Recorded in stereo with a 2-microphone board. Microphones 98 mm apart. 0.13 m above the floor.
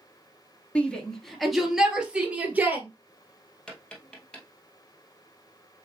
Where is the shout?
10° left (ahead or behind), 1.6 m; by 2.9 s 20° right (ahead or behind), 2.5 m.